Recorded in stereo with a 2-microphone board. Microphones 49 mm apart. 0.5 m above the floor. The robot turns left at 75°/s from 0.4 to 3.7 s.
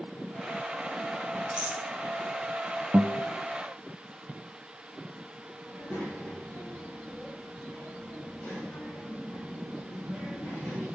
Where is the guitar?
35° right (ahead or behind), 0.6 m; by 3.3 s 55° right (ahead or behind), 0.6 m.